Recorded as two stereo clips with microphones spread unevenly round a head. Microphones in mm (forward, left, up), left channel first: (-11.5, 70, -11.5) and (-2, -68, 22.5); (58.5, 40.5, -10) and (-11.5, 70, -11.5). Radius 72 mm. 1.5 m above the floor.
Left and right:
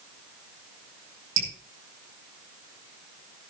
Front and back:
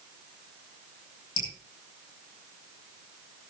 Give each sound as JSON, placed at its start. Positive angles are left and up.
{"t": 1.4, "sound": "dripping", "azimuth_deg": -45, "distance_m": 5.5}